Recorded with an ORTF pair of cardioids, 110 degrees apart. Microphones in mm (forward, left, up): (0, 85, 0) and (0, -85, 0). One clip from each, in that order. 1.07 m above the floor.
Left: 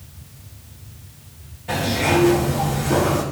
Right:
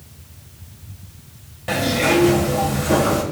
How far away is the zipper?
About 2.5 m.